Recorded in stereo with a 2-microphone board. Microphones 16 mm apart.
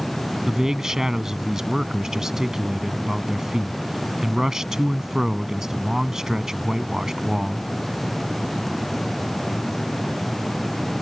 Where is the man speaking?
40° right (ahead or behind).